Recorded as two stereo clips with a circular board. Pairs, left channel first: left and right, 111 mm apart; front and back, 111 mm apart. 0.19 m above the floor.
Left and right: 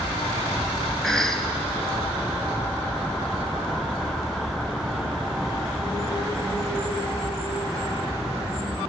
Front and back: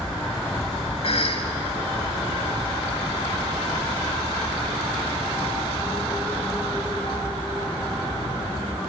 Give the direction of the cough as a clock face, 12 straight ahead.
12 o'clock.